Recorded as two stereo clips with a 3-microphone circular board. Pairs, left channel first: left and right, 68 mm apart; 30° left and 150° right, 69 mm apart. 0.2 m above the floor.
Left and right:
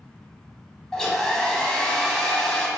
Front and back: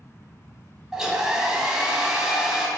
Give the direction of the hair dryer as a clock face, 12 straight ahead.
7 o'clock.